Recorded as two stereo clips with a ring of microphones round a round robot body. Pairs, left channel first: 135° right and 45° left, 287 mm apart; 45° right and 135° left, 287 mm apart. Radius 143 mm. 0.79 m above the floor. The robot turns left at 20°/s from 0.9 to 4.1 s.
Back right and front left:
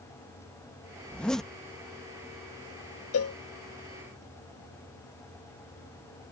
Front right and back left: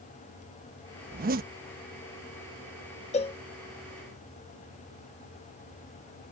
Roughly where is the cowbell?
Right.